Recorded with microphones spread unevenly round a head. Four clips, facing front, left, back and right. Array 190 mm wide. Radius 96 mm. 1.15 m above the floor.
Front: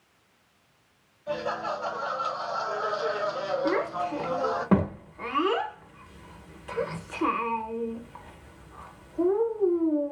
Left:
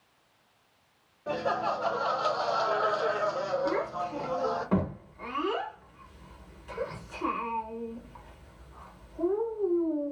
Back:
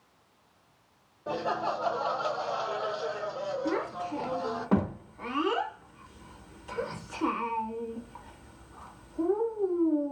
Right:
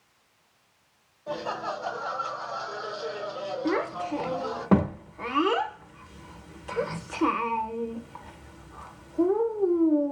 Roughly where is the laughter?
Behind left.